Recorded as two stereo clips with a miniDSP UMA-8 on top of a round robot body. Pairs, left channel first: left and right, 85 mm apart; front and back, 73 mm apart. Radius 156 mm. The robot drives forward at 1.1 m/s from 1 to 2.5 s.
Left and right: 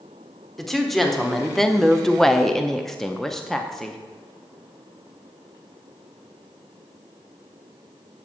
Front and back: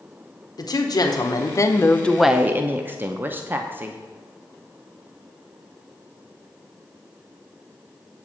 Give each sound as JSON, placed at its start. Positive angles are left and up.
{"t": 0.6, "sound": "a woman speaking", "azimuth_deg": 5, "distance_m": 1.5}